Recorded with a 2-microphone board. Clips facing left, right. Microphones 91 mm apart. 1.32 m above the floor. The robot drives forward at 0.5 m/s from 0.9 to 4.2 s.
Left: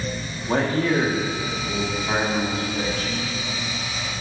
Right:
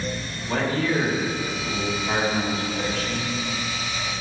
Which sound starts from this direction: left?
A man speaking, at 0.5 s.